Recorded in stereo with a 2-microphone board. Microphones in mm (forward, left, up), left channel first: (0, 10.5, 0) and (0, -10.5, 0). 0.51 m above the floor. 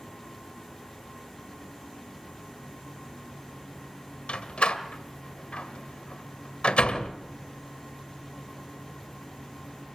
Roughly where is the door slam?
Left.